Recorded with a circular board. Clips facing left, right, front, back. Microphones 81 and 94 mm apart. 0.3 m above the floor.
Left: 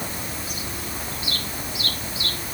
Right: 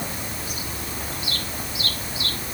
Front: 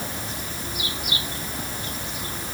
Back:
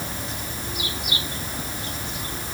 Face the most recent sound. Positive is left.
No sound to turn to.